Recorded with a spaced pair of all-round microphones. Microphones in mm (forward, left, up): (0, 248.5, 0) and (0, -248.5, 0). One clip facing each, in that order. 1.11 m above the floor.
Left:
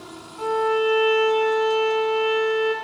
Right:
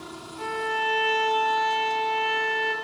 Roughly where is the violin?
Right.